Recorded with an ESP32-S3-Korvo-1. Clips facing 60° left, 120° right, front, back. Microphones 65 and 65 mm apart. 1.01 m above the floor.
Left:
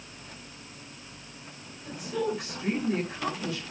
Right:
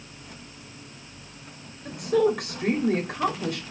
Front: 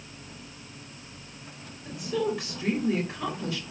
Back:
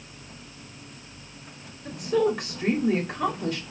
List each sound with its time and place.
1.9 s a woman speaking: 145° right, 2.5 m